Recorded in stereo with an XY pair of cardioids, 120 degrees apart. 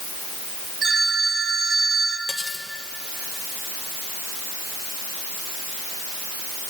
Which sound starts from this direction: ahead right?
A phone ringing, at 0.8 s.